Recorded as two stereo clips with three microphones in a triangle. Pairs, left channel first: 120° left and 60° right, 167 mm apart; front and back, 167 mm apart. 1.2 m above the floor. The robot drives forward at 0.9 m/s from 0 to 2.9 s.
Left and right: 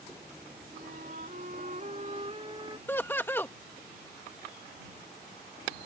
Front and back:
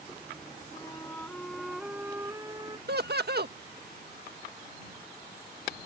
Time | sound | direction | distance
0.7 | a flute | 65° right | ?
2.9 | laughter | 160° right | ?